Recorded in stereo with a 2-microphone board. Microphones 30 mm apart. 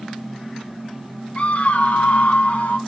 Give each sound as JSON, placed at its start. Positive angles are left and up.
{"t": 1.4, "sound": "a scream", "side_deg": 45, "distance_m": 0.8}